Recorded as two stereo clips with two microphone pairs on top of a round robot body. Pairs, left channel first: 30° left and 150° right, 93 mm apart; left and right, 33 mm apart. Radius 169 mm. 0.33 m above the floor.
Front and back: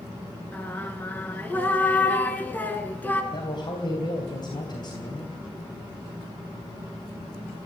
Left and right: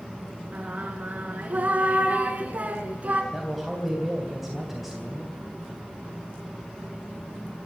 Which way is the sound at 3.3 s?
Straight ahead.